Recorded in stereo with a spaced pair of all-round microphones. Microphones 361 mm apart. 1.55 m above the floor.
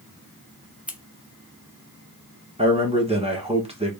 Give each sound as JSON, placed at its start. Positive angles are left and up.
{"t": 0.9, "sound": "scissors", "side_deg": -5, "distance_m": 0.6}
{"t": 2.6, "sound": "a man speaking", "side_deg": -15, "distance_m": 1.2}